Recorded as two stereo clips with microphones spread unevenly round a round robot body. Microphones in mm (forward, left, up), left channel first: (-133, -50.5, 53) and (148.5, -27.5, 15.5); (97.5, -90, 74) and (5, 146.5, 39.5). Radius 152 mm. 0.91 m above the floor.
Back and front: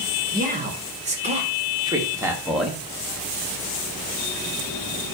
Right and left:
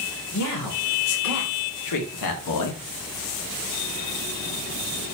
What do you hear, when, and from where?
0.3 s a man speaking: 55° right, 3 m; by 2.8 s 85° right, 1.6 m